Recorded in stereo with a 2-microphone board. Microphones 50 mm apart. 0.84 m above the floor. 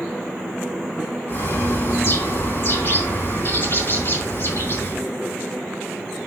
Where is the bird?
45° left (ahead or behind), 5 m.